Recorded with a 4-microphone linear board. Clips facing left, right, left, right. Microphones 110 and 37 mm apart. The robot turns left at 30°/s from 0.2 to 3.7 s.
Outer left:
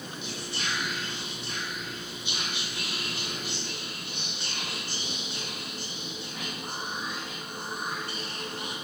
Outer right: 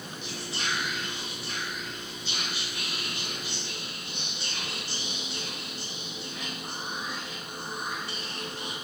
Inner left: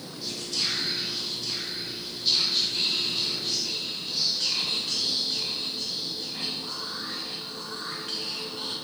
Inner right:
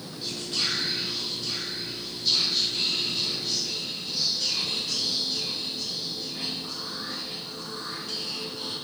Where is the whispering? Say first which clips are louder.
Outer right 1 dB, inner right 1 dB; 135° right, 1.7 m; by 8.8 s 120° left, 1.7 m.